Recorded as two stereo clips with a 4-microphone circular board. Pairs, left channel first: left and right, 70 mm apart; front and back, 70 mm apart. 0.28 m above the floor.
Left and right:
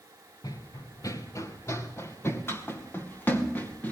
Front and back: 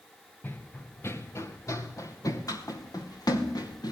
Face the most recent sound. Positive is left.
turn(degrees=25)